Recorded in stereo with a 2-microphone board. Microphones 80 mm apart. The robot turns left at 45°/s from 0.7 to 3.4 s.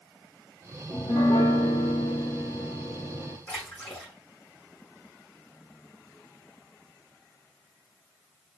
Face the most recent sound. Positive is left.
turn(degrees=20)  # may be behind; listen again after turning